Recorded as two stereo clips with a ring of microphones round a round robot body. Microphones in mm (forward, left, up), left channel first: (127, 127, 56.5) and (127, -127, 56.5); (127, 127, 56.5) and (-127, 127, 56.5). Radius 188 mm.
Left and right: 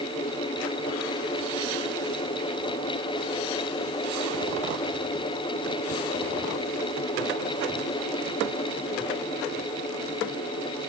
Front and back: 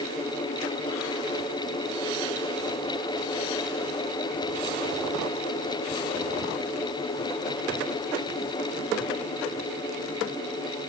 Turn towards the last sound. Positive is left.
No sound to turn to.